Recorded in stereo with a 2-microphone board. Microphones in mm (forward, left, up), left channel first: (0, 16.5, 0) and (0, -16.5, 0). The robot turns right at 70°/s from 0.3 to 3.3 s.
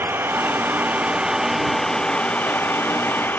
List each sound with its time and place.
0.0 s an engine running: 95° right; by 3.4 s 115° left